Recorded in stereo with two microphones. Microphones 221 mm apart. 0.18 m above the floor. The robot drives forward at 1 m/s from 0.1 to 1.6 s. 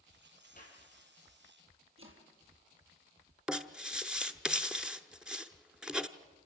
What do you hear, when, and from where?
0.6 s a clap: 40° left (ahead or behind), 5.5 m
2.0 s chopping: 75° right (ahead or behind), 4 m
3.5 s writing: 5° right (ahead or behind), 0.8 m